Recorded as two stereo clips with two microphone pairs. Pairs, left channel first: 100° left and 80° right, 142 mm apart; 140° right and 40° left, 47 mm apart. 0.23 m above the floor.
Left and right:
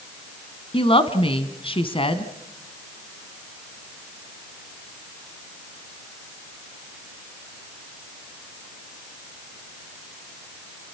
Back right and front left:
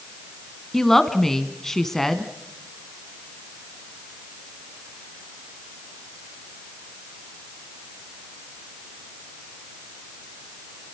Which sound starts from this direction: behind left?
A woman speaking, at 0.7 s.